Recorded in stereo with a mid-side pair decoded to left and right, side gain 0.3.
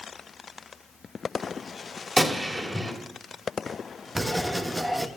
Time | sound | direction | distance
2.2 | a gunshot | 25° right | 2.5 m
4.2 | writing | 15° right | 1.1 m